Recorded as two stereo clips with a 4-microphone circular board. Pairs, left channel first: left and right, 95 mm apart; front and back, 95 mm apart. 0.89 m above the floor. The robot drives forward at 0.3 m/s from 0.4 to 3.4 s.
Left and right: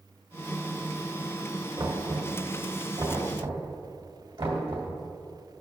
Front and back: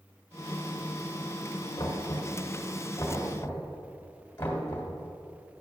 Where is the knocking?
50° right, 2.5 m; by 4.9 s 60° right, 2 m.